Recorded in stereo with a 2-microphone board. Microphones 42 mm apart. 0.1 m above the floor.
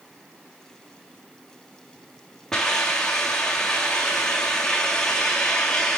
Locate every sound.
2.5 s a hiss: 15° left (ahead or behind), 3 m